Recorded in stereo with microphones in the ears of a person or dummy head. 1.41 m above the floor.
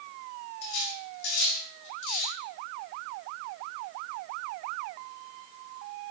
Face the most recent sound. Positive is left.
turn(degrees=55)  # may be behind; listen again after turning